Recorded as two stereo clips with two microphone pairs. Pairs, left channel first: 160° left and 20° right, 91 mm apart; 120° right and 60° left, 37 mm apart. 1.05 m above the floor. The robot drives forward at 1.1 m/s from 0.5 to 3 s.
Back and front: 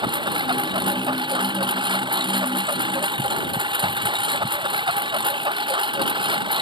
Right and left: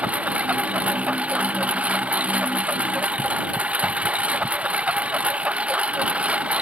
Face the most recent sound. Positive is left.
turn(degrees=10)